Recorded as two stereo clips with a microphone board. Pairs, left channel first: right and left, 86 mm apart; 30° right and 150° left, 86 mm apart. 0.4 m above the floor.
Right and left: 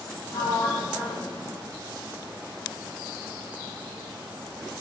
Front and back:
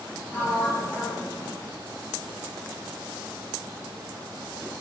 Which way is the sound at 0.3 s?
95° right.